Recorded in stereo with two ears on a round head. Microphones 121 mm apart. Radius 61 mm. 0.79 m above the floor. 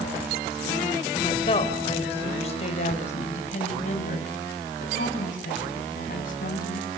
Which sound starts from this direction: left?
A woman speaking, at 1.1 s.